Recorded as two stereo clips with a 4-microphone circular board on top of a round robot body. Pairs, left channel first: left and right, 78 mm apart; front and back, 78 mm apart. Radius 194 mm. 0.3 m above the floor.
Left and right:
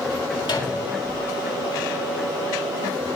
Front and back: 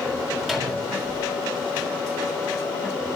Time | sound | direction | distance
0.4 | a microwave | 85° left | 3.5 m